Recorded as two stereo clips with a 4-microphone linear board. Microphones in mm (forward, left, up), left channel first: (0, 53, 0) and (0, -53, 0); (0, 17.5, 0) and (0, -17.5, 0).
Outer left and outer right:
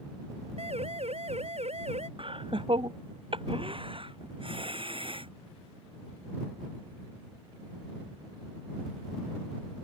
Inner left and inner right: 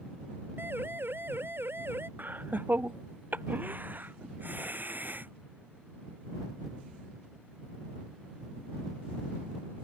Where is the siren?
70° right (ahead or behind); by 2.1 s 75° right (ahead or behind).